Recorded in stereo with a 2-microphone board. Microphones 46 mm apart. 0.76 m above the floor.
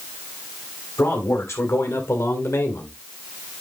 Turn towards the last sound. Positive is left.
turn(degrees=60)  # may be behind; listen again after turning